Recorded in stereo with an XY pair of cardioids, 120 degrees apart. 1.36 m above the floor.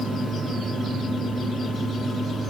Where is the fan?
5° left, 0.9 m.